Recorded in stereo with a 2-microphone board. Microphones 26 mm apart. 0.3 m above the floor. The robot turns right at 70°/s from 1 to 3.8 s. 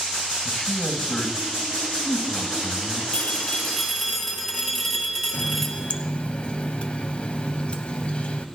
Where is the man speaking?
30° left, 1.9 m; by 3.0 s 170° left, 1.9 m.